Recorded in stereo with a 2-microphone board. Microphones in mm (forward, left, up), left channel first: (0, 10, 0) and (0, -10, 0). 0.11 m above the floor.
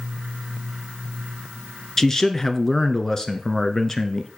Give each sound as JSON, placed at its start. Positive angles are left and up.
{"t": 2.0, "sound": "a man speaking", "side_deg": 20, "distance_m": 1.2}